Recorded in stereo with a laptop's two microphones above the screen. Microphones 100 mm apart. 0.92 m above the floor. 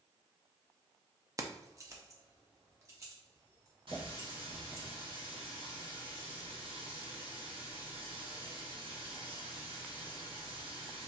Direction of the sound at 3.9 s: 60° right (ahead or behind).